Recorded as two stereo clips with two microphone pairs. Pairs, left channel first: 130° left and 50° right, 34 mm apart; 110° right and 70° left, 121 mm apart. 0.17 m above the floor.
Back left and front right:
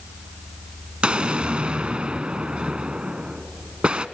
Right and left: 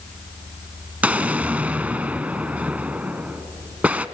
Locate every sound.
1.0 s an explosion: 5° right, 0.5 m